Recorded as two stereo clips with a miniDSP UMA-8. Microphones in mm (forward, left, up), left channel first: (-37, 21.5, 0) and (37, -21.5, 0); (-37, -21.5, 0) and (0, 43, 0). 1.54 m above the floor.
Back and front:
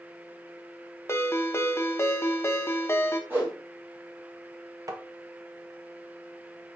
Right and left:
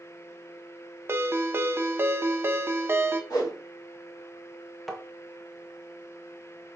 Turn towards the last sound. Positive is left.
turn(degrees=-30)